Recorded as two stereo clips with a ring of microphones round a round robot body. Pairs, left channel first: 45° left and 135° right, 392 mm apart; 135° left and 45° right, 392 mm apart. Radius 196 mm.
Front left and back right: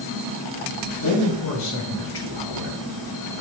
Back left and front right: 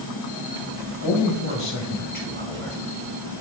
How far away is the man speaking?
About 3 m.